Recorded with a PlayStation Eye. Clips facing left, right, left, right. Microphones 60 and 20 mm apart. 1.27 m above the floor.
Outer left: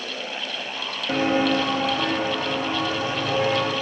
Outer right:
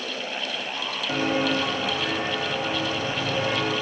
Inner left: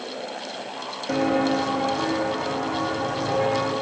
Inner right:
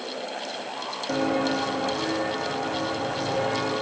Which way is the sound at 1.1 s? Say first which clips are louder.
Outer left 4 dB, inner left 3 dB; 30° left (ahead or behind).